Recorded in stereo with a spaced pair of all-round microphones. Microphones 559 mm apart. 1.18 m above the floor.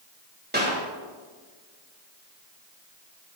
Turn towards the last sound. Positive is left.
turn(degrees=-15)  # may be behind; listen again after turning